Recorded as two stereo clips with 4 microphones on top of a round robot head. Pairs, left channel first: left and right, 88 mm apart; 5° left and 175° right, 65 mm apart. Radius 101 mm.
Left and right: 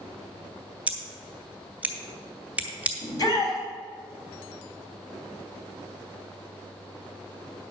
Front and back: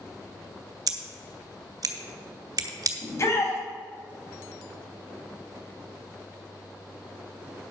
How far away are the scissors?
About 1.2 m.